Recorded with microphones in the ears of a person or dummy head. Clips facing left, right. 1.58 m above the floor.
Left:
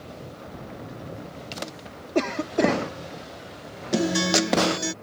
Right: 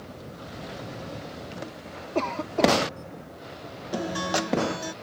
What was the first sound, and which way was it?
A cough, 15° left (ahead or behind).